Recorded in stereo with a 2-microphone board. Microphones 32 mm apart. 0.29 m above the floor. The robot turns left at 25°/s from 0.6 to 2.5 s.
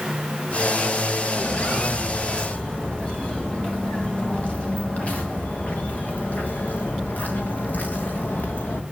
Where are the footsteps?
55° left (ahead or behind), 5.5 m; by 8.8 s 75° left (ahead or behind), 2.5 m.